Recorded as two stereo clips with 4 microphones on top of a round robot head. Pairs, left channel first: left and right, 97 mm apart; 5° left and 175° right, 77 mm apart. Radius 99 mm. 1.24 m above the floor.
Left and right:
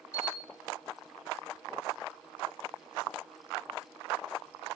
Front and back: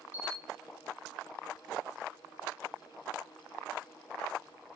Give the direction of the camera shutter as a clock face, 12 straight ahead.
3 o'clock.